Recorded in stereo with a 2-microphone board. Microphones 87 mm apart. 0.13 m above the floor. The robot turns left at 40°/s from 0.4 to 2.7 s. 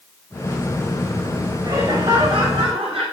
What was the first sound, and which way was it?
Laughter, 40° right.